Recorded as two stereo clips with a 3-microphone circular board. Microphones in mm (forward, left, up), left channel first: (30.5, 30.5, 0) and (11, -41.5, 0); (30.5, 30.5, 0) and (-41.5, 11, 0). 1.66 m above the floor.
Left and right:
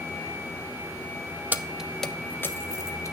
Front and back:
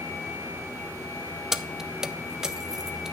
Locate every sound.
1.5 s keys jangling: 85° right, 0.6 m; by 3.1 s 110° left, 1.1 m